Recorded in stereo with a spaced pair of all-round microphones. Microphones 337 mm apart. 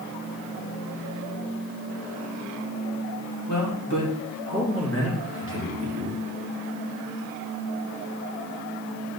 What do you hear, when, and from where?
3.5 s a man speaking: 60° left (ahead or behind), 2.5 m; by 6.2 s 30° left (ahead or behind), 2.5 m